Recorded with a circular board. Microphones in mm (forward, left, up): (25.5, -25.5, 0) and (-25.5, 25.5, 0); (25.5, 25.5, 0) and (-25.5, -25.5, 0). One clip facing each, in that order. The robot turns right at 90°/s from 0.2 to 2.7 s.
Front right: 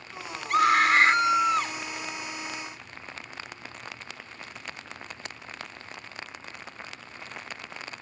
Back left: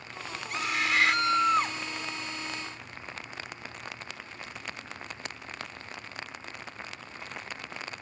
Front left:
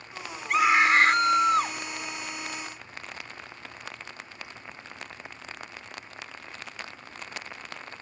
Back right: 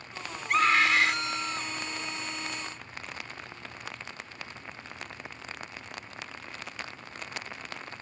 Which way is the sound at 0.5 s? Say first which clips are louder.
Front right 10 dB, front left 3 dB; 45° right.